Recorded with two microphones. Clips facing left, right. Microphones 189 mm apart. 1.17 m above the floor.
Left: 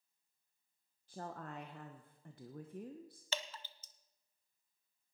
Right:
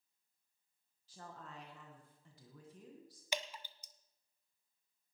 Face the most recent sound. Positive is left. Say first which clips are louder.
# right 2 dB
turn(degrees=-15)  # may be behind; listen again after turning